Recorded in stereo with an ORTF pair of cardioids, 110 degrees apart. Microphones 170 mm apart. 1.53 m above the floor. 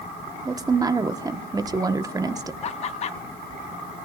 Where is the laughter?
40° left, 1.2 m.